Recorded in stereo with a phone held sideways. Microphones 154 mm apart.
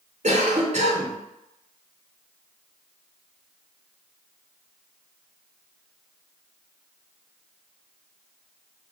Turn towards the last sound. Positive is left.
turn(degrees=-45)  # may be behind; listen again after turning